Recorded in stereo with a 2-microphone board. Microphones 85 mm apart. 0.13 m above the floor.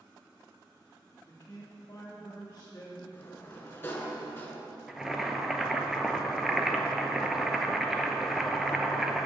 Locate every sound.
1.2 s a man speaking: 30° left (ahead or behind), 1.4 m
3.1 s a sliding door: 25° left (ahead or behind), 1.0 m
4.9 s boiling: 5° right (ahead or behind), 0.5 m